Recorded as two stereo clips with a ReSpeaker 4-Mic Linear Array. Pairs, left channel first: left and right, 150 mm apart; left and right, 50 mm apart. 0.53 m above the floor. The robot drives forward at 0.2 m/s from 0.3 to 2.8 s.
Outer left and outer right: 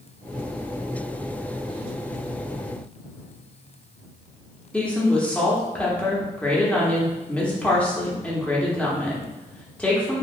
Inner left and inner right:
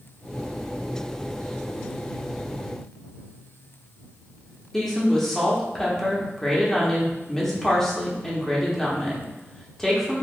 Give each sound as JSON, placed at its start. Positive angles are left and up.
{"t": 4.7, "sound": "a woman speaking", "side_deg": 10, "distance_m": 0.8}